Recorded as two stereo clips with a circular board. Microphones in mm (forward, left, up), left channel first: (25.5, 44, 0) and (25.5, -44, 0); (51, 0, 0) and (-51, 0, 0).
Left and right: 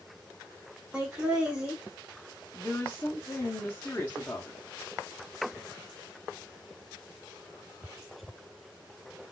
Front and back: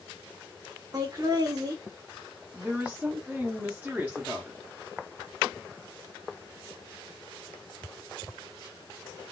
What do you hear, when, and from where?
0.9 s laughter: 160° right, 0.8 m
2.5 s a woman speaking: 125° left, 0.8 m